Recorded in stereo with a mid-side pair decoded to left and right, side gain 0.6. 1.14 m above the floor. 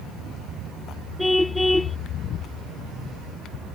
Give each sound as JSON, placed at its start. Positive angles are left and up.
{"t": 1.2, "sound": "a car horn", "azimuth_deg": 5}